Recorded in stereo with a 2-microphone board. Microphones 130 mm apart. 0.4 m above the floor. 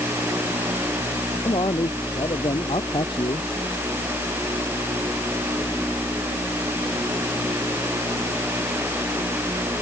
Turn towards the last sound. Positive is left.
turn(degrees=45)  # may be behind; listen again after turning